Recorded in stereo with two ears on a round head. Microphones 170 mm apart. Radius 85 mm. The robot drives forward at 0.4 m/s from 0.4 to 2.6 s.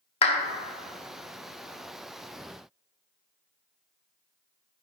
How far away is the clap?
About 0.9 m.